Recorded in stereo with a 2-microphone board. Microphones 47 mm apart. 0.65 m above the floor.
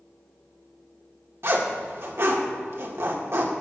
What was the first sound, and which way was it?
A zipper, 60° right (ahead or behind).